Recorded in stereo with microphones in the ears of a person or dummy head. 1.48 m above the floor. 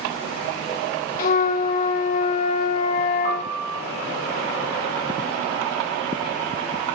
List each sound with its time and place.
1.2 s a flute: 60° left (ahead or behind), 0.6 m
3.2 s a piano: 75° right (ahead or behind), 5 m